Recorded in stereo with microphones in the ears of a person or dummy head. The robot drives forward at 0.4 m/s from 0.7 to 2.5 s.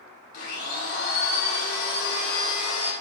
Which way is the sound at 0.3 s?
50° left (ahead or behind).